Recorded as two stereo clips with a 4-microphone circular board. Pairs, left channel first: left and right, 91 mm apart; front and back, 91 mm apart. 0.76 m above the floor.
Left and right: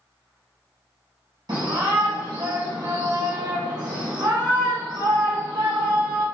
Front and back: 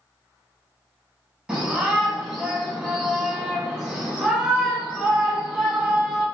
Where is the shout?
105° right, 0.7 m.